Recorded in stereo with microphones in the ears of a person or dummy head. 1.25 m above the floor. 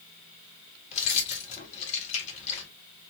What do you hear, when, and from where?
0.9 s keys jangling: 35° left (ahead or behind), 1.7 m